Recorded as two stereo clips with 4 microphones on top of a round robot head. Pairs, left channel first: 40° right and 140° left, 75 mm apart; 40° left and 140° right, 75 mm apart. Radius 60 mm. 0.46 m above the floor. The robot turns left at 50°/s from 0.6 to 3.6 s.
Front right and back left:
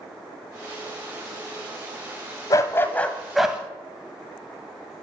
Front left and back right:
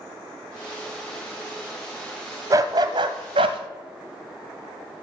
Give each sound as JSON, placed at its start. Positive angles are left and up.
{"t": 2.5, "sound": "a dog barking", "azimuth_deg": -90, "distance_m": 0.7}